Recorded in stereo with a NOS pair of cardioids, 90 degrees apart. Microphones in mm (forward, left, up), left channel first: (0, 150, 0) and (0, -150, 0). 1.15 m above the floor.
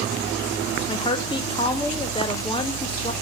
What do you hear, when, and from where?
0.9 s a woman speaking: 15° left, 2.5 m